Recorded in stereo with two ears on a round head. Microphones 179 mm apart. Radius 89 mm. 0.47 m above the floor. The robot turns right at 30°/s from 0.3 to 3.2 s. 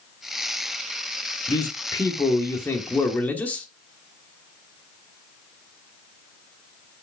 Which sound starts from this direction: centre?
A man speaking, at 1.5 s.